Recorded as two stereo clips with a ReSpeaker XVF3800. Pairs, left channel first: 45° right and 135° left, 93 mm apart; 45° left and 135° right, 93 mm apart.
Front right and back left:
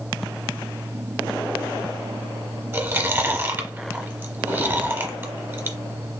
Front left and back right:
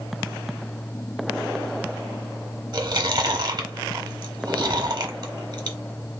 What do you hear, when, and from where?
2.7 s chewing: 165° right, 0.9 m